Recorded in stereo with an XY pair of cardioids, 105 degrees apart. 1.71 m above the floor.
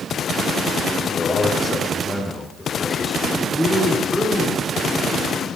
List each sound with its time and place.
1.1 s a man speaking: 25° left, 6 m; by 3.4 s 5° left, 5.5 m
3.5 s a man speaking: 5° right, 6.5 m